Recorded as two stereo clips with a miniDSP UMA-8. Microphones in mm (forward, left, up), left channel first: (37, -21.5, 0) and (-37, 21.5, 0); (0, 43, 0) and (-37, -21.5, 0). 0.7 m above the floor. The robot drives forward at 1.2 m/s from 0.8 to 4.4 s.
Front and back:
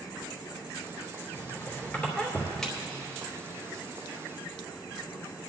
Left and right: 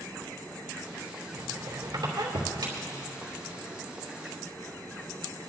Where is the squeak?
85° right, 3 m; by 3.3 s 130° right, 3.5 m.